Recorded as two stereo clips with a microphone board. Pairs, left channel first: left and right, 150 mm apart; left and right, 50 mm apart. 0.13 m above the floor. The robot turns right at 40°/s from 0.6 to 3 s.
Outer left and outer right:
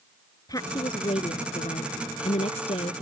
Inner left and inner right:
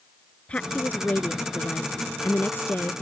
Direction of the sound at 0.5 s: 35° left.